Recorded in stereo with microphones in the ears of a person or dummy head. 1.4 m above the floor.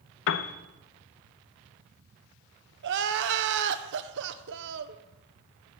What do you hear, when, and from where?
0.3 s a piano: 55° left (ahead or behind), 0.7 m
2.8 s crying: 60° right (ahead or behind), 0.8 m